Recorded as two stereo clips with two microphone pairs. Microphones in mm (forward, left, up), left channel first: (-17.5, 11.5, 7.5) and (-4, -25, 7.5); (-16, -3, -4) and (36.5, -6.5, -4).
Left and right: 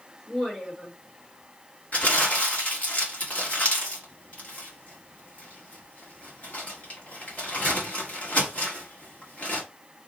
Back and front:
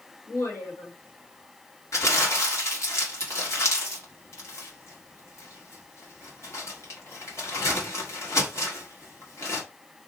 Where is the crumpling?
155° left, 1.4 m.